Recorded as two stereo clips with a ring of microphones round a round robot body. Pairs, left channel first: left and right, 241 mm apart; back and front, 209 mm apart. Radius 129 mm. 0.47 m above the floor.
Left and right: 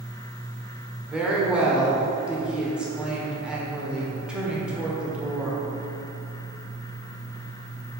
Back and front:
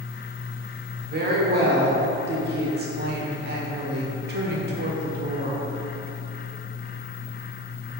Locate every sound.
1.1 s a woman speaking: 5° right, 1.5 m